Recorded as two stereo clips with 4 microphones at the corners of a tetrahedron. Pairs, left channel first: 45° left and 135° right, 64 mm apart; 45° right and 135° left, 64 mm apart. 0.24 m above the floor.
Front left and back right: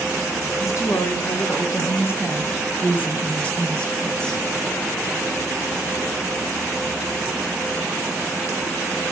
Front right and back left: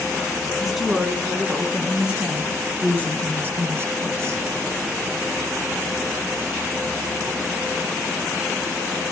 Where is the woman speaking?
50° left, 2.5 m; by 4.4 s 125° left, 2.0 m.